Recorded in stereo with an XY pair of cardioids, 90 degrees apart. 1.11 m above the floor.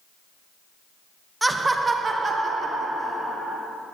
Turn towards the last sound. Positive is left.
turn(degrees=-55)